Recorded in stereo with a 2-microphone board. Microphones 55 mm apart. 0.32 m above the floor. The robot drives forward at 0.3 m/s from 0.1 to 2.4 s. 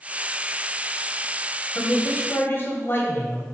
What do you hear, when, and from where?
1.8 s a man speaking: 40° left (ahead or behind), 1.8 m